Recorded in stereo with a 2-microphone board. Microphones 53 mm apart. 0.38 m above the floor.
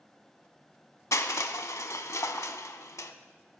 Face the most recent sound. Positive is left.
turn(degrees=70)  # may be behind; listen again after turning